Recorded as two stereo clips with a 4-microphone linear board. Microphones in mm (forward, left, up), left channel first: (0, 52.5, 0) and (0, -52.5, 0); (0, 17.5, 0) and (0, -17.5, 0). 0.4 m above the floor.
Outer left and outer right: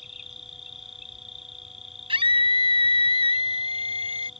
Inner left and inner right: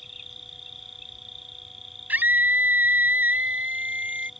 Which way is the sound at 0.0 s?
5° right (ahead or behind).